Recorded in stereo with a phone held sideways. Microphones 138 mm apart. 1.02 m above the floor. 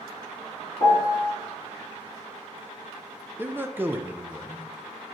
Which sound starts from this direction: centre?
A man speaking, at 3.4 s.